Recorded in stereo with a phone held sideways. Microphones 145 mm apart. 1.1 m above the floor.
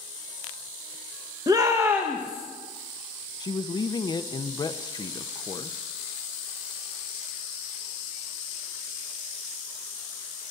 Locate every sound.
1.5 s a shout: 30° right (ahead or behind), 1.2 m; by 2.5 s 5° right (ahead or behind), 1.6 m
3.4 s a man speaking: 30° left (ahead or behind), 0.7 m